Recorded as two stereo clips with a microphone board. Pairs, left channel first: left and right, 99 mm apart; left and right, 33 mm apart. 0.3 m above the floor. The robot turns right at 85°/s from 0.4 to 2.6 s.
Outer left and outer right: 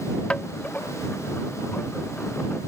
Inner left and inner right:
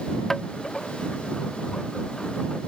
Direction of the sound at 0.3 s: 10° left (ahead or behind).